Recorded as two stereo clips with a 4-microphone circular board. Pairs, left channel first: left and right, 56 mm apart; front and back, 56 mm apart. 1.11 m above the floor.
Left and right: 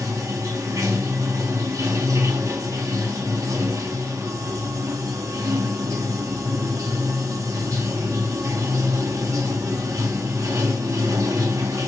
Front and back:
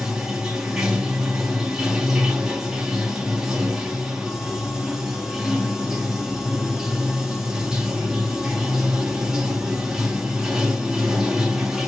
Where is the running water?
100° right, 1.4 m.